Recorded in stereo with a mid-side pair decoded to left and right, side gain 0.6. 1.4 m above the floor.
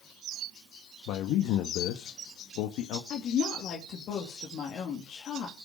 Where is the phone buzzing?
I don't hear a phone buzzing.